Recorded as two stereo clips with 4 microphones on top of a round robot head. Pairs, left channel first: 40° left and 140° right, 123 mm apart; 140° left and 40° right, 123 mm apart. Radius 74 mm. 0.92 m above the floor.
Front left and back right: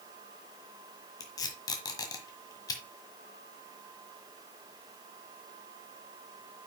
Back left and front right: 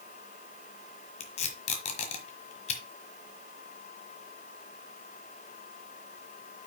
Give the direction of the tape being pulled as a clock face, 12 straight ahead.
9 o'clock.